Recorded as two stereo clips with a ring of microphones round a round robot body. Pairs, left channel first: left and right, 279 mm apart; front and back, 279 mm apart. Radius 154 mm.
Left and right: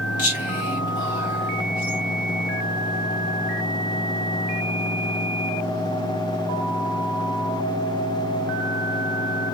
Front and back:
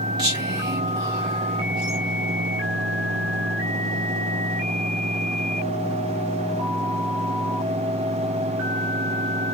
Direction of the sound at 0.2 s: 120° left.